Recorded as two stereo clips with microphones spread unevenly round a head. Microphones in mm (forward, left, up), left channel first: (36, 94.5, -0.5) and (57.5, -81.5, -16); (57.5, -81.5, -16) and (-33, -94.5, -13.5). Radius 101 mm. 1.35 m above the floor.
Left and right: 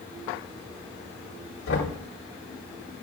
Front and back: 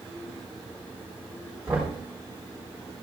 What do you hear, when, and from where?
1.7 s knocking: 105° left, 3.5 m